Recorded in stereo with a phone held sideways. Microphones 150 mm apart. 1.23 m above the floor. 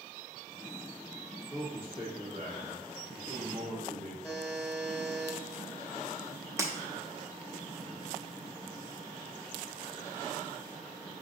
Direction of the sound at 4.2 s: 5° left (ahead or behind).